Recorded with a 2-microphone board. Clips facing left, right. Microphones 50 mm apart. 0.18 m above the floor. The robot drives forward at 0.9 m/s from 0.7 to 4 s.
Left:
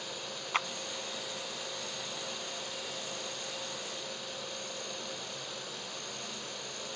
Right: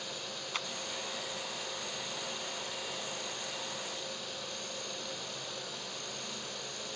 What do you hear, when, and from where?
0.5 s a clap: 35° left (ahead or behind)